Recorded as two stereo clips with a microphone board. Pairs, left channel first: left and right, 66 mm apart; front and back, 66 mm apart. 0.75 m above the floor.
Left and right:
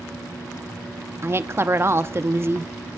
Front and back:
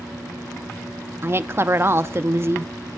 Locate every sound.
1.2 s a woman speaking: 135° right, 0.7 m